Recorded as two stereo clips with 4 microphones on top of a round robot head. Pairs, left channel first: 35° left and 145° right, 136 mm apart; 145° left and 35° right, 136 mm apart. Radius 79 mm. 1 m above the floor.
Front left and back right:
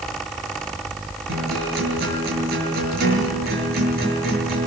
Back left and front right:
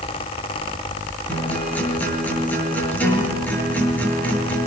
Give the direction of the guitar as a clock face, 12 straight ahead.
4 o'clock.